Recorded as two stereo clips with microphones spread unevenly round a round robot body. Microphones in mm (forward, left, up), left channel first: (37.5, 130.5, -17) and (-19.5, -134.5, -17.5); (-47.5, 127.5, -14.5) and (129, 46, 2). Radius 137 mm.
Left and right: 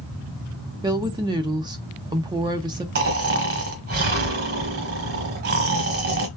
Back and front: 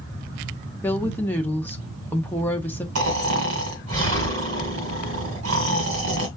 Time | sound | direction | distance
0.8 | a woman speaking | 155° right | 0.6 m
3.0 | snoring | 60° right | 1.4 m